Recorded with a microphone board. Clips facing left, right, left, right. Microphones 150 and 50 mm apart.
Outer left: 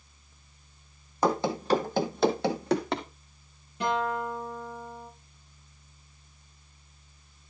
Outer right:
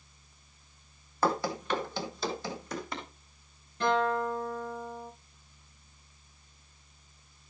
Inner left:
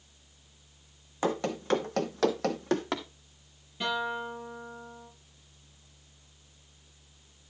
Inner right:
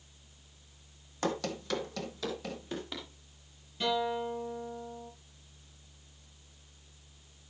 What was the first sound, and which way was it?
Running footsteps, 15° left (ahead or behind).